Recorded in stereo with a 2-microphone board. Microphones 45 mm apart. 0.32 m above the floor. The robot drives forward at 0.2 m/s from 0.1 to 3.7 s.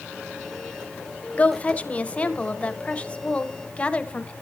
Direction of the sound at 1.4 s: 30° left (ahead or behind).